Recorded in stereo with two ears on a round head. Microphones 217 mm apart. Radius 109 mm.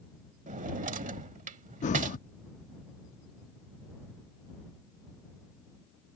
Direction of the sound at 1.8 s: 30° left (ahead or behind).